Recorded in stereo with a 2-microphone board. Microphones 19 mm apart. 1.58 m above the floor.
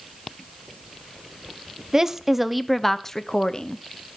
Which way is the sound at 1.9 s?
25° right (ahead or behind).